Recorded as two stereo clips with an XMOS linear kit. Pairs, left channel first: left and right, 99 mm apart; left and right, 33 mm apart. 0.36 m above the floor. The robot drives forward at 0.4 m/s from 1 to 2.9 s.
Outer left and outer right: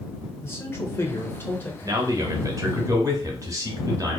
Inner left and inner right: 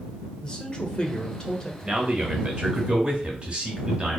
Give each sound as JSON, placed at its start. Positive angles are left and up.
{"t": 0.4, "sound": "a man speaking", "side_deg": 25, "distance_m": 0.8}
{"t": 1.8, "sound": "a man speaking", "side_deg": -35, "distance_m": 1.0}